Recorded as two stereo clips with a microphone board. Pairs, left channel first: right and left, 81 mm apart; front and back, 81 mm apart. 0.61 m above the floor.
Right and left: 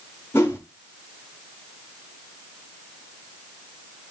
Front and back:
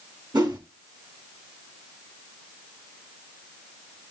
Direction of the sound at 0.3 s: 145° right.